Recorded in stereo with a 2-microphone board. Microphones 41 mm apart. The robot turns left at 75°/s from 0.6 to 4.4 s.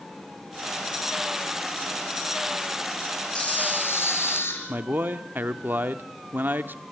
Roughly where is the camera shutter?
Behind left.